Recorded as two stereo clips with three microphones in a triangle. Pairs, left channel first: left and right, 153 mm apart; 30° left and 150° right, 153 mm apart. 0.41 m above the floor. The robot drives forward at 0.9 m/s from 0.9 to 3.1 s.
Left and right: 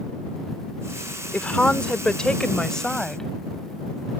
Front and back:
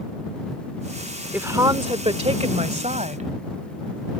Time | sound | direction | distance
1.3 | a woman speaking | 155° left | ?